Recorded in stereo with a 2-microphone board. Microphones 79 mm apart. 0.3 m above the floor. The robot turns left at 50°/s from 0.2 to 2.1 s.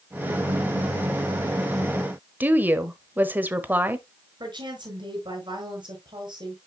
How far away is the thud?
No thud in this recording.